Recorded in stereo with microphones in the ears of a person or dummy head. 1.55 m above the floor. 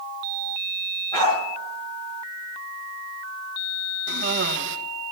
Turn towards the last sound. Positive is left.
turn(degrees=-65)  # may be behind; listen again after turning